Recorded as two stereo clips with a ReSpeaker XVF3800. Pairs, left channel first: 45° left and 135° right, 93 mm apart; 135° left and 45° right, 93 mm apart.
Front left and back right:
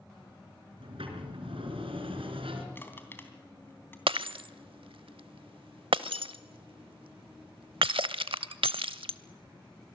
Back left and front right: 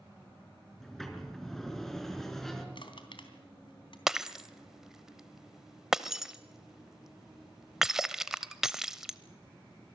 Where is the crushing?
110° left, 3 m.